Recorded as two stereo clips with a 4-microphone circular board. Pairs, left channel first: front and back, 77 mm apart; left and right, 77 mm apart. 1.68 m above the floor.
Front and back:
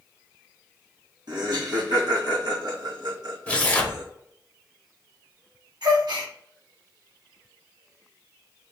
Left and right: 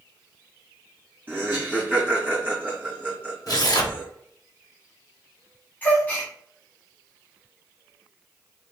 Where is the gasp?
160° left, 1.3 m.